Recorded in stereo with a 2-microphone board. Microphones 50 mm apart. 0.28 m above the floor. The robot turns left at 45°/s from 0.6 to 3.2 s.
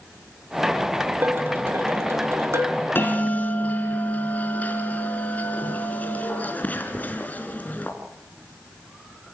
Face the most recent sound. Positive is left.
turn(degrees=35)  # may be behind; listen again after turning